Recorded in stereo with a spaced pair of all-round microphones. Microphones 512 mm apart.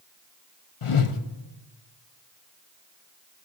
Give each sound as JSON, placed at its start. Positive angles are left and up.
{"t": 0.8, "sound": "a whoosh", "side_deg": 75, "distance_m": 0.9}